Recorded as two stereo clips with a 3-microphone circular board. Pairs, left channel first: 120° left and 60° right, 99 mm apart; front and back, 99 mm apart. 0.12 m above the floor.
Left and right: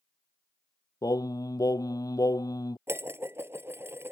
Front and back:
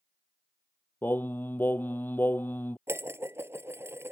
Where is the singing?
70° left.